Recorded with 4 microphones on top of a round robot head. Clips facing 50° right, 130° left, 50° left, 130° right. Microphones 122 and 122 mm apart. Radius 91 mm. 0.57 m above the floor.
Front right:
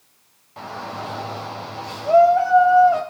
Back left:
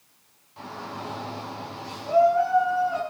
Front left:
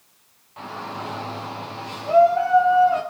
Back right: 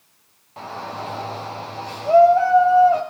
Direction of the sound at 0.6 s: 80° right.